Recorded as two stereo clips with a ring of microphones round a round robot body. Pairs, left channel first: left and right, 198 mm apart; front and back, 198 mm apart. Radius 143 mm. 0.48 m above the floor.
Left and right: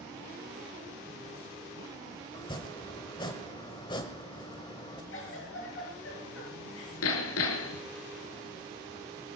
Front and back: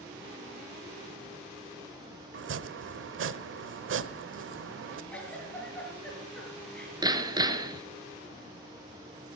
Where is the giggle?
85° left, 7 m.